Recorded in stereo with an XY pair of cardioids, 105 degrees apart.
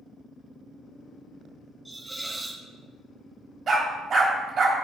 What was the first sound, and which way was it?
A hiss, 15° right.